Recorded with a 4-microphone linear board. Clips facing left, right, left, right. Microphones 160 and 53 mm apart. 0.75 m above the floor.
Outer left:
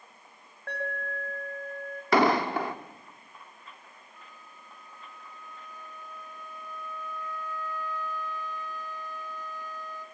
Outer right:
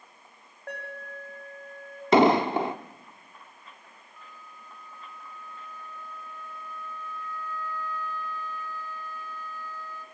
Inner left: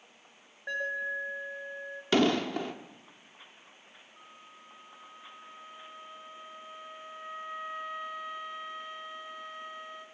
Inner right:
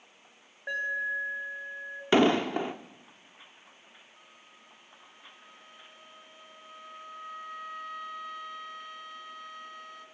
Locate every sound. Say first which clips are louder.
0.7 s an alarm: outer left 4 dB, inner right 2 dB; 10° right (ahead or behind), 6 m
2.1 s an explosion: outer right 4 dB, inner right 3 dB; 20° right (ahead or behind), 0.7 m
4.2 s a flute: outer right 5 dB, inner left 3 dB; 15° left (ahead or behind), 1.3 m